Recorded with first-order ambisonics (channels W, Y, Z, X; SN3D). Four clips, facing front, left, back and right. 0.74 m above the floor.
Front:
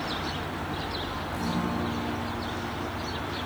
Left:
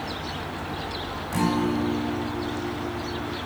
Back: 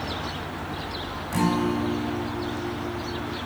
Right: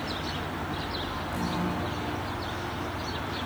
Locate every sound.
1.3 s a guitar: 140° left, 5 m